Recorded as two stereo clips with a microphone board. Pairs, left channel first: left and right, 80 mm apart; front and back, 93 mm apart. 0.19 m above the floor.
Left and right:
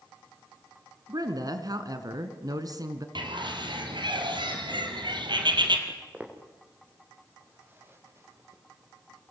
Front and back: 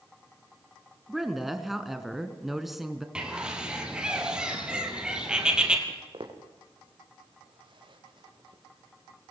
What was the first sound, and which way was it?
A woman speaking, 90° right.